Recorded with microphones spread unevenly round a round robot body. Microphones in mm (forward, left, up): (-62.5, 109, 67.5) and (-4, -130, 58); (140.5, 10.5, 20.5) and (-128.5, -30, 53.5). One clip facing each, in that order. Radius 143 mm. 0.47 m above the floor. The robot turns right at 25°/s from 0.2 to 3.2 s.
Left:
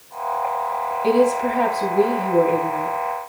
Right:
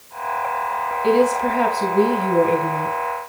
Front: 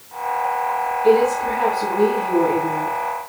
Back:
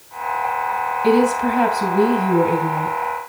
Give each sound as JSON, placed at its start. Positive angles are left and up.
{"t": 1.0, "sound": "a woman speaking", "azimuth_deg": -170, "distance_m": 3.0}